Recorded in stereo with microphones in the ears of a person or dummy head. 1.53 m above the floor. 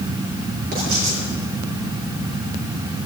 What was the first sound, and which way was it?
Writing, 55° right (ahead or behind).